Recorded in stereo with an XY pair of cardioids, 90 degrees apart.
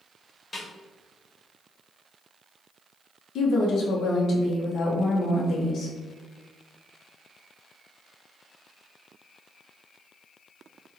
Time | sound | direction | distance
0.5 | a snare drum | 15° left | 1.5 m
3.4 | a woman speaking | 65° left | 0.8 m